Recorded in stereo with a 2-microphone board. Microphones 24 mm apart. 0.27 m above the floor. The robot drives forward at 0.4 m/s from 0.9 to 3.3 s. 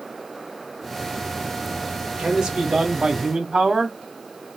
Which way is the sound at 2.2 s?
35° right (ahead or behind).